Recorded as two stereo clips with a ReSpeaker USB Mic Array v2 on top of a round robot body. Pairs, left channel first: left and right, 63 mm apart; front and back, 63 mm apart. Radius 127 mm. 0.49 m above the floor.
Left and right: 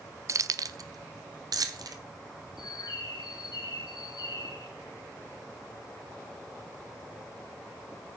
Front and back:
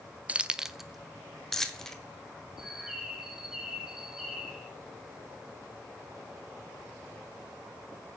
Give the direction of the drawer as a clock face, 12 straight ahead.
No drawer in this recording.